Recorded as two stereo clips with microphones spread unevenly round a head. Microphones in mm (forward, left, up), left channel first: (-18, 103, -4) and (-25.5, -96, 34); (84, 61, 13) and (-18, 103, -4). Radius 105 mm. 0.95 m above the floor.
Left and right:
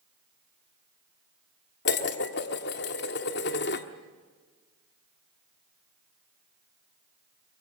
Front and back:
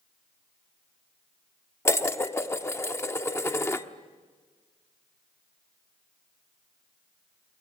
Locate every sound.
1.9 s dishes clattering: 45° left, 1.2 m